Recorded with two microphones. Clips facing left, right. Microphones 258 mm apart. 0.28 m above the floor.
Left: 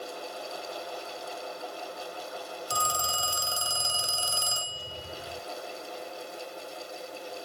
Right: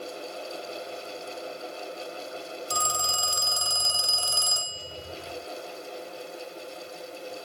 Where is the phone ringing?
5° left (ahead or behind), 1.8 m.